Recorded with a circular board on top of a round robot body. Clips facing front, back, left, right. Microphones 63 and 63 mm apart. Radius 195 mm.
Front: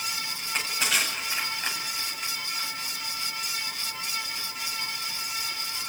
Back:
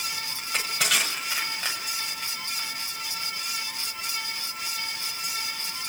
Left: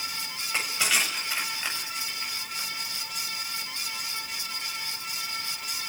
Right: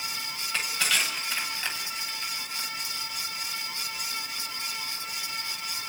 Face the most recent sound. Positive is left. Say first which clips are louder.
# back 2 dB, left 1 dB
turn(degrees=165)